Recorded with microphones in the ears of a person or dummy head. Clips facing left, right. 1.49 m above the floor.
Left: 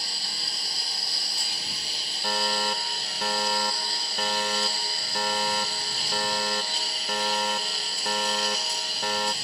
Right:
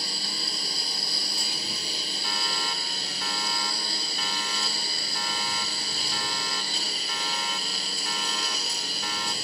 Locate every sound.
0.0 s a lawn mower: 70° right (ahead or behind)
2.2 s a fire alarm: 50° left (ahead or behind)